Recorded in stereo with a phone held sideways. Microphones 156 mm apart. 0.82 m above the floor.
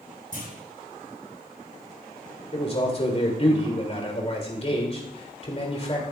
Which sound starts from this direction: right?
A clunk, at 0.3 s.